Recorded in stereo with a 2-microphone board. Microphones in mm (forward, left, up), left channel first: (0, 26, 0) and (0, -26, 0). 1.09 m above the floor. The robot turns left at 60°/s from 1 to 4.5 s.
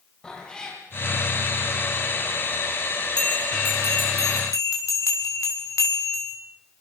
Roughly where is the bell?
Behind.